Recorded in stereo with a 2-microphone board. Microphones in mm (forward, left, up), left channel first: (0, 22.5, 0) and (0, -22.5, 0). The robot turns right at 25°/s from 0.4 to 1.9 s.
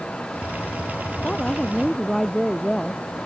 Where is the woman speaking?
25° left (ahead or behind); by 3.0 s 5° left (ahead or behind).